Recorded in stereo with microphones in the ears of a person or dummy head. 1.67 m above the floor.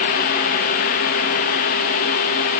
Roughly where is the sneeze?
I don't hear a sneeze.